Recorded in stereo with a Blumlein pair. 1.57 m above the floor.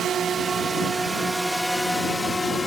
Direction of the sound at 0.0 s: 25° right.